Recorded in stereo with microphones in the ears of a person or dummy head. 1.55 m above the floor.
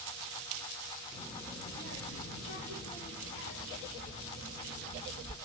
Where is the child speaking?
30° left (ahead or behind), 1.4 m; by 5.3 s 75° left (ahead or behind), 4 m.